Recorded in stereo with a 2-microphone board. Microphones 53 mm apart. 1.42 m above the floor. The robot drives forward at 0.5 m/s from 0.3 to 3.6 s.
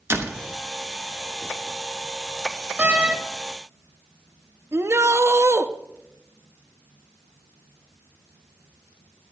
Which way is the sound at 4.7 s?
55° right (ahead or behind).